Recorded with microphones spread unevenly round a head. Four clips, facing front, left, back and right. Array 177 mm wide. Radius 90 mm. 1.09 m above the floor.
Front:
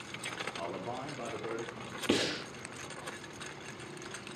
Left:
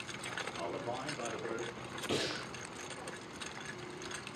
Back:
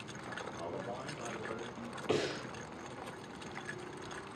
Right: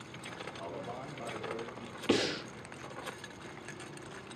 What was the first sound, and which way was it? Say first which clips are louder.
A man speaking: left 3 dB, front 3 dB; 25° left.